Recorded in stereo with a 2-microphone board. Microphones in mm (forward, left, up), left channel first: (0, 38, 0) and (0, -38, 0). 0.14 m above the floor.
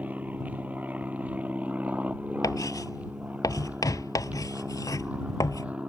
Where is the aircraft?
20° right (ahead or behind).